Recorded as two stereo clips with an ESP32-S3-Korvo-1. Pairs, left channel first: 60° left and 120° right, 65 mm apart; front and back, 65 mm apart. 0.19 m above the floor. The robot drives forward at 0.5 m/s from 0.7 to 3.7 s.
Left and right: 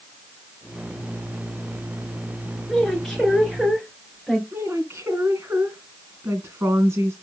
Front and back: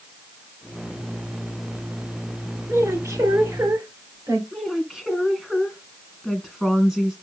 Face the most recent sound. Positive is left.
turn(degrees=-95)